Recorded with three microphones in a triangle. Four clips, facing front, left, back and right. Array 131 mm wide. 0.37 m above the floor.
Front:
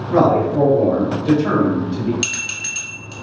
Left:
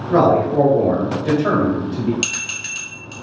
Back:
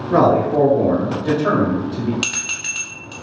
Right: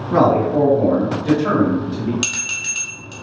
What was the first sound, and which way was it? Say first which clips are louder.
A man speaking: even, even; 155° left.